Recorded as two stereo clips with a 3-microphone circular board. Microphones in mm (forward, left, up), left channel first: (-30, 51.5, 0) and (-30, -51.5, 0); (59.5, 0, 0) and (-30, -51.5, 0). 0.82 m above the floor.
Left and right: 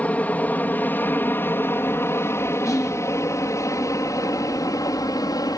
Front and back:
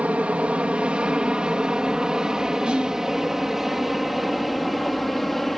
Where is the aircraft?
150° left; by 5.6 s 120° left.